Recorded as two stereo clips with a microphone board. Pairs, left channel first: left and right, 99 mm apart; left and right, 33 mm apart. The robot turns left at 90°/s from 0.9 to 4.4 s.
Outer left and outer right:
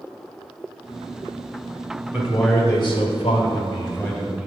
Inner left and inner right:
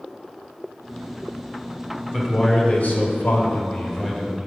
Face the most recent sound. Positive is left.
turn(degrees=-10)